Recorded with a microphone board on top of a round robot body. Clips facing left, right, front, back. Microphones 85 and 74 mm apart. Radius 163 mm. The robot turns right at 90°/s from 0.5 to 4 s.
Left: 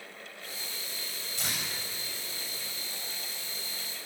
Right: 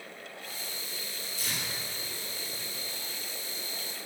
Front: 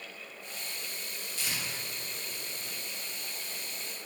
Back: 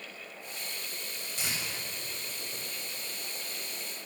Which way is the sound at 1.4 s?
105° left.